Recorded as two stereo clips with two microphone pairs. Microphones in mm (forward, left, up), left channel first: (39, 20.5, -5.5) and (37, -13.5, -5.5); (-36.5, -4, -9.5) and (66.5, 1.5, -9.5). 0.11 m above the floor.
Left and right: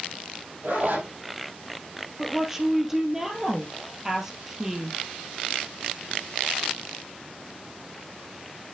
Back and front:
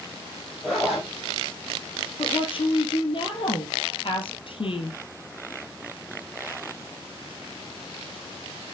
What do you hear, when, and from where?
0.6 s a zipper: 80° right, 3.5 m
2.2 s a woman speaking: 170° right, 2 m